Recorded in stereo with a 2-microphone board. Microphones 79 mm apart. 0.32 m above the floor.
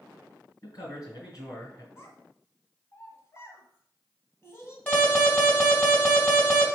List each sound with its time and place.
0.6 s a man speaking: 50° left (ahead or behind), 3 m
2.0 s a child speaking: 35° left (ahead or behind), 1.5 m
4.9 s an alarm: 20° left (ahead or behind), 3 m